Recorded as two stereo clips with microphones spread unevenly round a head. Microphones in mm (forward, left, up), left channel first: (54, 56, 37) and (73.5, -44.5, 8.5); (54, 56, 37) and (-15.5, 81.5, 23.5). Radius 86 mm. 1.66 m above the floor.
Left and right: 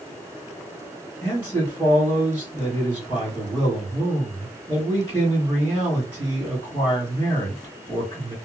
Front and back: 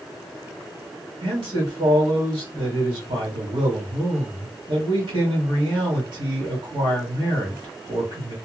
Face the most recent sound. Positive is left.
turn(degrees=180)